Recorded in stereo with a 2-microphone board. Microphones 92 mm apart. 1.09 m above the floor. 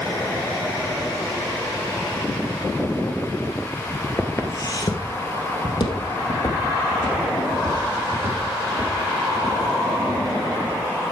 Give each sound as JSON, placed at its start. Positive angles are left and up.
{"t": 4.2, "sound": "footsteps", "side_deg": 25, "distance_m": 1.1}